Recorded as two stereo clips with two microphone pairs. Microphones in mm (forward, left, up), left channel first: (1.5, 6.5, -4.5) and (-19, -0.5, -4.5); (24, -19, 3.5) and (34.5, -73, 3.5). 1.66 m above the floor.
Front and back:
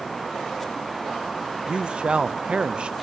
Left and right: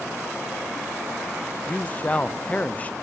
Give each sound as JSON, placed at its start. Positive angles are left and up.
{"t": 1.7, "sound": "a man speaking", "azimuth_deg": 165, "distance_m": 0.7}